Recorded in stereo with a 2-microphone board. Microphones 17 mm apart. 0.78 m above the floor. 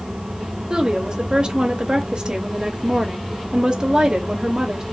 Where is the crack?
I don't hear a crack.